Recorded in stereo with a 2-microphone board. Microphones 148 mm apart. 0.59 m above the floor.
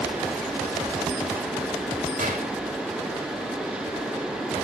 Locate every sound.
2.2 s a gunshot: 70° right (ahead or behind), 2.5 m